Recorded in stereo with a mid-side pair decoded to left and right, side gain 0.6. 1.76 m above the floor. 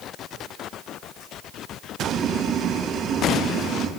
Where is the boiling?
70° right, 3.5 m.